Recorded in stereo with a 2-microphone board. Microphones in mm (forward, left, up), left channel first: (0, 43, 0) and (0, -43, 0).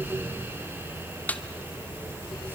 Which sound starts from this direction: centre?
A snare drum, at 1.3 s.